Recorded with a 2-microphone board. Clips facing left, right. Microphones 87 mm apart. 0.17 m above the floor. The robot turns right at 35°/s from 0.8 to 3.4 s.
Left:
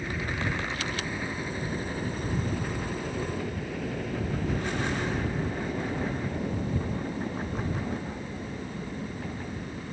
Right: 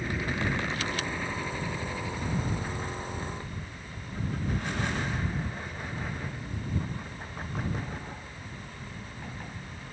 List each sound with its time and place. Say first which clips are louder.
0.0 s a helicopter: right 1 dB; centre (ahead or behind); by 9.9 s 70° left (ahead or behind)